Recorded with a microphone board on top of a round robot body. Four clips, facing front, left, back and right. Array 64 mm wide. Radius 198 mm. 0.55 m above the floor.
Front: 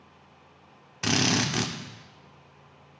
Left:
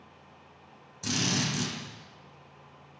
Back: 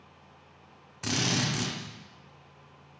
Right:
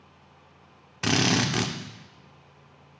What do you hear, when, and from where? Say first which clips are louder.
1.0 s a drill: right 7 dB, front 4 dB; 65° right, 2.5 m